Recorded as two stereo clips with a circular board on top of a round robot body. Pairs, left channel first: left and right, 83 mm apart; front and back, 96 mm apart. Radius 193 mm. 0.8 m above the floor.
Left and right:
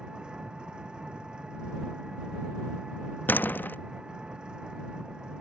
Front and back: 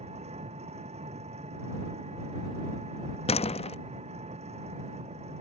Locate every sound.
0.0 s an engine running: 170° right
3.3 s a door slam: 20° left